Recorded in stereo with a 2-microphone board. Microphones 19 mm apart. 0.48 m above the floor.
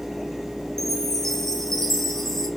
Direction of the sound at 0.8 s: 20° left (ahead or behind).